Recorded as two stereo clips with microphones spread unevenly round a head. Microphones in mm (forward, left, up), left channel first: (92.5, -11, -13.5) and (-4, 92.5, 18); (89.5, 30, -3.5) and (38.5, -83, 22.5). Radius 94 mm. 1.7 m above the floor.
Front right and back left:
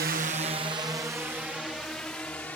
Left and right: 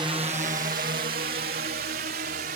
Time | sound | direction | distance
0.0 | a drone | 175° left | ?